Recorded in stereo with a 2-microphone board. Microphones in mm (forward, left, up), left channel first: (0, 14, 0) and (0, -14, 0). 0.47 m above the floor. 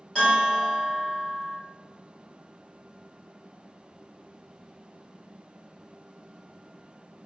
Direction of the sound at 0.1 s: 15° left (ahead or behind).